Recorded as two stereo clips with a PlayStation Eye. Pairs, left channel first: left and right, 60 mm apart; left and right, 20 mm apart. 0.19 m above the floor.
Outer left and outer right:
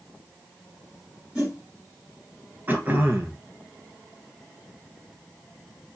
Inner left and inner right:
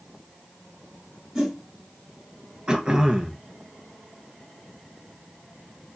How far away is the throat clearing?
About 0.7 m.